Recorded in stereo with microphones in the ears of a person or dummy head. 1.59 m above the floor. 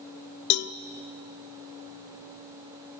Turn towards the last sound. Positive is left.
turn(degrees=65)  # may be behind; listen again after turning